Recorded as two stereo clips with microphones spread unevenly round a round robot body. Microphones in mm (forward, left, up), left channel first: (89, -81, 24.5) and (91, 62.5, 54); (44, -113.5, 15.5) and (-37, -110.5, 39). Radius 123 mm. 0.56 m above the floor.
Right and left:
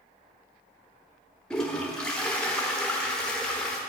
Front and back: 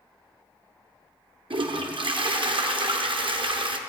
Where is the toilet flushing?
170° right, 1.2 m.